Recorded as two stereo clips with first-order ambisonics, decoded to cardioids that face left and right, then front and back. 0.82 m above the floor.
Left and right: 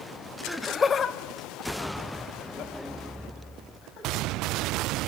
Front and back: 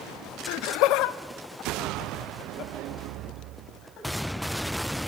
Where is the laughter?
5° right, 0.7 m; by 4.3 s 50° left, 5 m.